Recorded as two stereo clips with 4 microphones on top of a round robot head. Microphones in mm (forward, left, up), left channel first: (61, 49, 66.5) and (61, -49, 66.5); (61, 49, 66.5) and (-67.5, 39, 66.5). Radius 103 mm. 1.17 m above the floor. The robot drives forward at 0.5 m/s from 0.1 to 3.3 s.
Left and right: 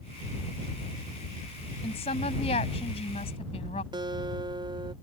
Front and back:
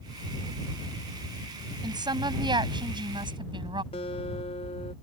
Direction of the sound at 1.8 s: 125° left.